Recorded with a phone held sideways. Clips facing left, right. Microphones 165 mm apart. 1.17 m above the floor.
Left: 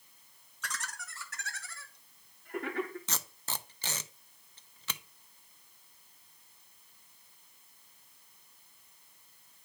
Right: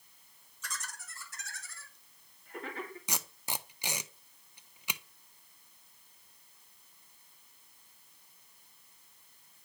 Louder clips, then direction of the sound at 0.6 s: Left 3 dB; 75° left (ahead or behind).